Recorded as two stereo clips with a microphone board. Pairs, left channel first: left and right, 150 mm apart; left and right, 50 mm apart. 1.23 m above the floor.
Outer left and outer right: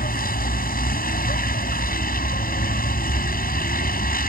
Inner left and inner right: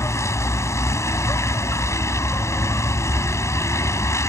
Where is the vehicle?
75° left (ahead or behind).